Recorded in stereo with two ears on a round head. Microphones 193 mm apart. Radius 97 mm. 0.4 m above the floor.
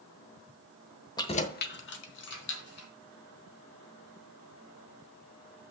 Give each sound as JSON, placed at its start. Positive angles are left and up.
{"t": 1.2, "sound": "keys jangling", "side_deg": 20, "distance_m": 0.9}